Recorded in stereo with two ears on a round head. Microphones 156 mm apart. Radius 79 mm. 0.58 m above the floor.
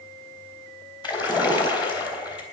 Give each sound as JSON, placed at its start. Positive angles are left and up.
{"t": 1.0, "sound": "a splash", "side_deg": 25, "distance_m": 3.0}